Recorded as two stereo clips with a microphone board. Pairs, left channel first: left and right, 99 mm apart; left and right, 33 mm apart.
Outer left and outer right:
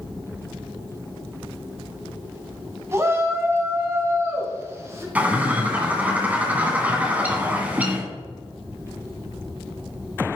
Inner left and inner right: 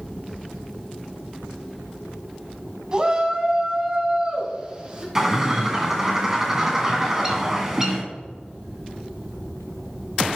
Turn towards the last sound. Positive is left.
turn(degrees=-15)  # may be behind; listen again after turning